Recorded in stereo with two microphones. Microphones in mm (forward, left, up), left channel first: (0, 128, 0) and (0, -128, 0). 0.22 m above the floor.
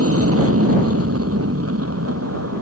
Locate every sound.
0.0 s an aircraft: 60° right (ahead or behind); by 2.6 s 70° right (ahead or behind)